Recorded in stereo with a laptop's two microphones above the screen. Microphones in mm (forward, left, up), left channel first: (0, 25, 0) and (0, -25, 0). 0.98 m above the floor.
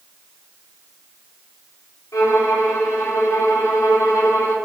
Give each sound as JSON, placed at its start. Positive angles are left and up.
{"t": 2.1, "sound": "a violin", "side_deg": 85, "distance_m": 1.8}